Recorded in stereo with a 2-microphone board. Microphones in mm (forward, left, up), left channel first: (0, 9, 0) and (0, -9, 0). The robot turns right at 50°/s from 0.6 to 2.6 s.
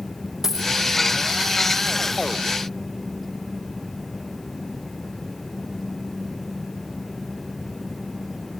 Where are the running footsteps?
No running footsteps in this recording.